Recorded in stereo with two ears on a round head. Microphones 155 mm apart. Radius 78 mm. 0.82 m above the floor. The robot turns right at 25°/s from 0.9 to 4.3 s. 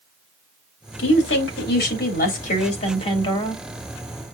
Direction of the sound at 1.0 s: 95° left.